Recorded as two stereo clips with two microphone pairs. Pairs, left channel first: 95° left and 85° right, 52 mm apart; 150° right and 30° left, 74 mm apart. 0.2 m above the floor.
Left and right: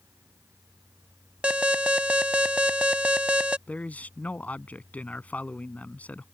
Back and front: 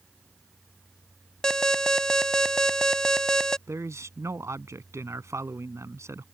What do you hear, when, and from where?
1.4 s an alarm: 85° right
3.7 s a man speaking: 50° left